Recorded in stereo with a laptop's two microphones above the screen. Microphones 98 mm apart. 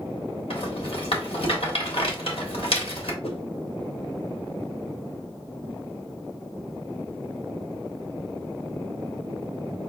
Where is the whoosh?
80° left, 0.8 m.